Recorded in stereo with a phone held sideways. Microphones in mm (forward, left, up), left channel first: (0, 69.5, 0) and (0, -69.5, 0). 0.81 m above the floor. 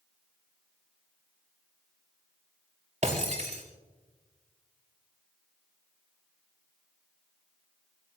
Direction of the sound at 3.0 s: 55° right (ahead or behind).